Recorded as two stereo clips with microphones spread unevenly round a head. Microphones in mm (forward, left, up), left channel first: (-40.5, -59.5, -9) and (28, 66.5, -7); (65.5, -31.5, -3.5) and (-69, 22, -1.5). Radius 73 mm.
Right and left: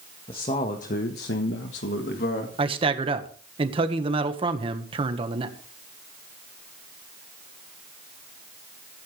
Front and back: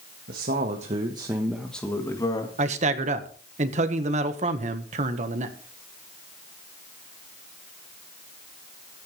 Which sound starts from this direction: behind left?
A man speaking, at 2.6 s.